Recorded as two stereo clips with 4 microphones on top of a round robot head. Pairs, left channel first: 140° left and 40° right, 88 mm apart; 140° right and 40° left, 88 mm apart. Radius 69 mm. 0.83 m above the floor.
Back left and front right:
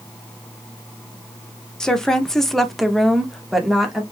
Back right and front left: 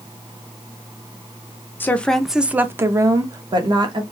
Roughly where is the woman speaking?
Behind right.